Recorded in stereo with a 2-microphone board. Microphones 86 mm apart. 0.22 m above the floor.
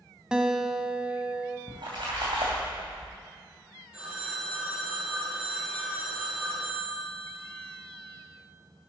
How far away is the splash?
About 3 m.